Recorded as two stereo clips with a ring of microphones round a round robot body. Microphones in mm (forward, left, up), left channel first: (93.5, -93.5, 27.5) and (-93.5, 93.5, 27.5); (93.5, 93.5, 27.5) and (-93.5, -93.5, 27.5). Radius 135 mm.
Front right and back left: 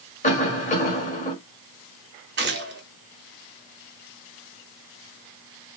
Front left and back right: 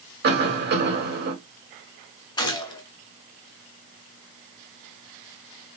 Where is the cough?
100° right, 2 m.